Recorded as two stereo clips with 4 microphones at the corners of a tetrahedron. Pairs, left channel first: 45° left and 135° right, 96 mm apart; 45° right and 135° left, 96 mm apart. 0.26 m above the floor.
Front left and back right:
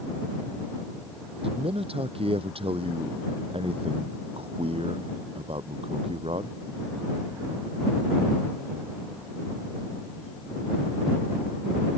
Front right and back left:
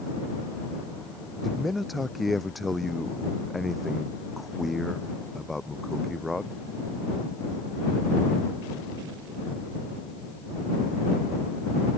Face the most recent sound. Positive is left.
turn(degrees=-135)